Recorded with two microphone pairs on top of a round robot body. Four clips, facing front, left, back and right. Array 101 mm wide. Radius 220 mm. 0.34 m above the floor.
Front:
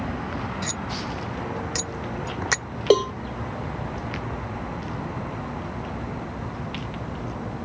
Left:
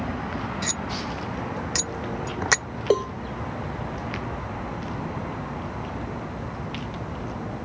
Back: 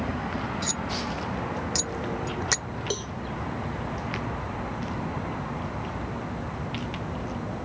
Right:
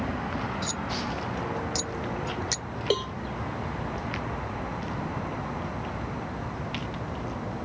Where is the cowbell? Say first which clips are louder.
Left 6 dB, front 18 dB; 5° left.